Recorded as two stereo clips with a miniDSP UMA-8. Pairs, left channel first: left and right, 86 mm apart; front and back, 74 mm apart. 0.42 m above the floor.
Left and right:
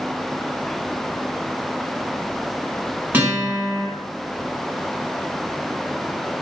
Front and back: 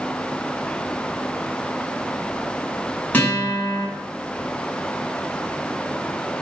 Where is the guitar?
40° right, 1.3 m.